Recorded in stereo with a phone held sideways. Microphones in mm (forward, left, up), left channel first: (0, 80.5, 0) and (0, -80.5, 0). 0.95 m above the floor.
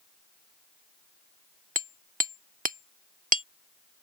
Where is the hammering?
55° right (ahead or behind).